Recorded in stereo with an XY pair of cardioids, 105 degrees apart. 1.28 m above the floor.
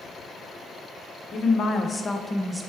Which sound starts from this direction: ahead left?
A woman speaking, at 1.3 s.